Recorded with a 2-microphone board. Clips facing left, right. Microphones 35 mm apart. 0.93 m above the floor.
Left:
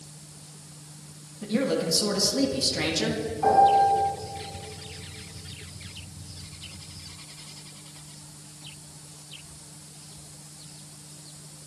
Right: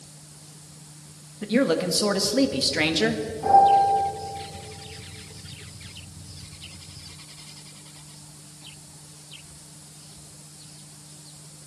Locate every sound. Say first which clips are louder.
1.4 s a man speaking: right 4 dB; 35° right (ahead or behind), 1.5 m
3.4 s a piano: right 2 dB; 35° left (ahead or behind), 6.5 m